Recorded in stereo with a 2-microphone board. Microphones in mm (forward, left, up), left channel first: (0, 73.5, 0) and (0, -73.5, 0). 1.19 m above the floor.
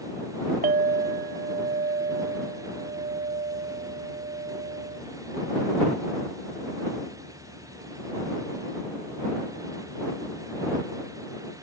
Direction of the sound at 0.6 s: 80° right.